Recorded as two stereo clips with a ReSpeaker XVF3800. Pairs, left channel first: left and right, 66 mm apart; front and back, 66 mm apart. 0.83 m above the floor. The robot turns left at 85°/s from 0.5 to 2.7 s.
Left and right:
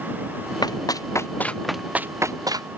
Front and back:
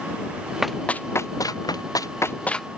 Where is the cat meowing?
No cat meowing in this recording.